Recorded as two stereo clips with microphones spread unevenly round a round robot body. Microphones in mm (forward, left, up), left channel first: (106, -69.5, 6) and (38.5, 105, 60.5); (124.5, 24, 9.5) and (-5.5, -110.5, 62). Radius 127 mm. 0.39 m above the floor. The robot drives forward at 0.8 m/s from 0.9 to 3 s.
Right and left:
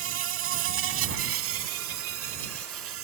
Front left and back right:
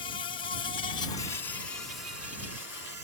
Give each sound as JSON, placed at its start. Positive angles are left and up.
{"t": 0.0, "sound": "an insect", "azimuth_deg": 110}